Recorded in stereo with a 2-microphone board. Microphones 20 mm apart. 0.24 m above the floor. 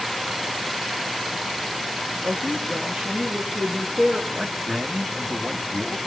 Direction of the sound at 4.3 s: 40° right (ahead or behind).